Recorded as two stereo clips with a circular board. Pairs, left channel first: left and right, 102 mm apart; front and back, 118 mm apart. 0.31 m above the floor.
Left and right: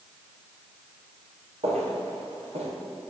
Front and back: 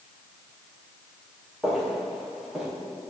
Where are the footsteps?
95° right, 5.5 m.